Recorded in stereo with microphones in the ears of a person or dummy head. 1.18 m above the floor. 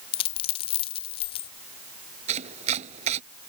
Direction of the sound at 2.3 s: 40° right (ahead or behind).